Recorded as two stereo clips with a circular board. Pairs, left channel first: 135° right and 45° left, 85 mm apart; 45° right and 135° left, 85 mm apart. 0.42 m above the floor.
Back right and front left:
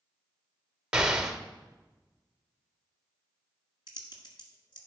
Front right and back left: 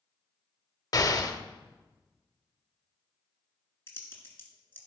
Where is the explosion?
30° right, 0.7 m.